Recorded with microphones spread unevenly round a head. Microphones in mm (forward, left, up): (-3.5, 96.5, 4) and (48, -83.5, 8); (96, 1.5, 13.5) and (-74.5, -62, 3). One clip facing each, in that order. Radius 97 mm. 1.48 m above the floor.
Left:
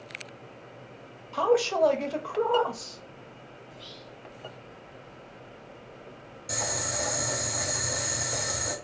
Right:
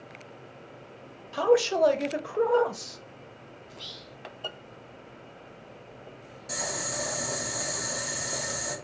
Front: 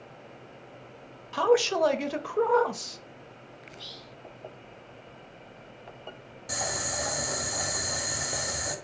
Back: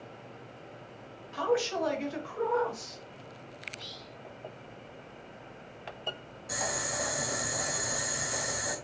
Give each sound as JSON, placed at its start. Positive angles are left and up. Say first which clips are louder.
{"t": 1.3, "sound": "a man speaking", "louder": "right 2 dB, front 6 dB", "azimuth_deg": 0, "distance_m": 0.5}
{"t": 3.7, "sound": "whispering", "louder": "left 1 dB, even", "azimuth_deg": -60, "distance_m": 0.5}
{"t": 6.5, "sound": "boiling", "louder": "left 1 dB, front 1 dB", "azimuth_deg": 30, "distance_m": 1.2}